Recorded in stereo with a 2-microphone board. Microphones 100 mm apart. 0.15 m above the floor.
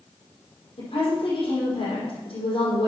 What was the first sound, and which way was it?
A woman speaking, 65° left (ahead or behind).